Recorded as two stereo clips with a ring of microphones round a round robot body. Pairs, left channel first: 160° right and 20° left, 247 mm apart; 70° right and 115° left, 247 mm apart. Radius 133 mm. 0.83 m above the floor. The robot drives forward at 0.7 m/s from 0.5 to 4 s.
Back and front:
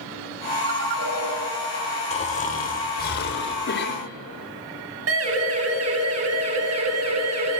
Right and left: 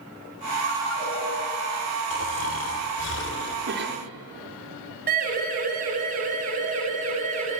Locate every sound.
0.6 s a ringtone: 55° left, 7.5 m; by 1.3 s 60° left, 7 m
2.1 s snoring: 95° right, 3 m; by 3.6 s 115° right, 3 m
3.7 s a cough: 155° left, 3 m; by 4.1 s 160° left, 3 m
5.1 s a siren: 55° left, 8 m; by 7.6 s 50° left, 9.5 m